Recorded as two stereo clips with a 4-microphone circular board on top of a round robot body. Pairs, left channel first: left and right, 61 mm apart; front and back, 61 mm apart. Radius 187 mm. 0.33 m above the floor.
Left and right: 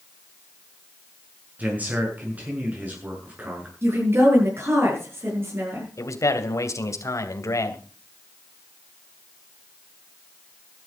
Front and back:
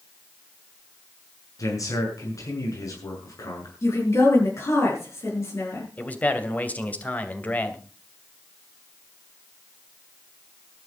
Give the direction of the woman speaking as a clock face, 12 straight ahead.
1 o'clock.